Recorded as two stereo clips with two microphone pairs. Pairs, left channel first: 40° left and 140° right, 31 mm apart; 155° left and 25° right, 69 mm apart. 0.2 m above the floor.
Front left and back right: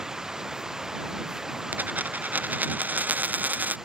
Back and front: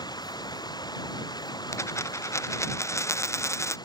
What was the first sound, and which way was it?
Running water, 145° left.